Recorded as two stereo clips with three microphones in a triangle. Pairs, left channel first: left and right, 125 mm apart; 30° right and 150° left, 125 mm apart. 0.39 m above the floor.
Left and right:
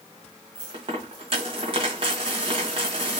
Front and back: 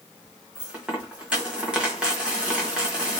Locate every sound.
0.6 s a dropped coin: 130° right, 1.1 m